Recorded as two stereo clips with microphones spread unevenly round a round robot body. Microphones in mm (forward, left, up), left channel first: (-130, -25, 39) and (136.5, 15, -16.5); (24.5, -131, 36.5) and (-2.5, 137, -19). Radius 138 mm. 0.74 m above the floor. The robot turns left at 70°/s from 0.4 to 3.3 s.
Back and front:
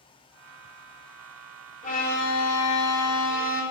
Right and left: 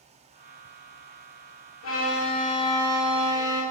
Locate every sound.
1.8 s a violin: 105° right, 0.6 m; by 3.6 s 150° left, 0.6 m